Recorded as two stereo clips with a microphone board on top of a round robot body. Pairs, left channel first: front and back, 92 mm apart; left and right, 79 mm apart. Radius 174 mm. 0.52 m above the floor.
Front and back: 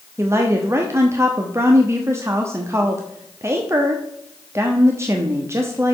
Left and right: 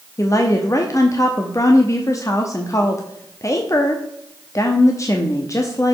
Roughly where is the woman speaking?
Behind left.